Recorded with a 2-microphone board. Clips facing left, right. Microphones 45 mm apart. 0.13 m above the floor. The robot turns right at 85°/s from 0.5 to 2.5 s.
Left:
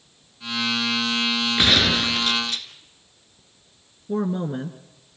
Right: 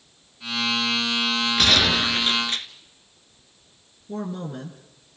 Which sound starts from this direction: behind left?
A gunshot, at 1.6 s.